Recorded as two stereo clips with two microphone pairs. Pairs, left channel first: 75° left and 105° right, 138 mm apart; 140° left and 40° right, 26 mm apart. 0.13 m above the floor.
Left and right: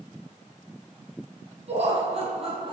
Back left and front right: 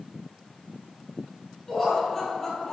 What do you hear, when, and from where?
1.7 s laughter: 140° right, 3 m; by 2.7 s 150° right, 2.5 m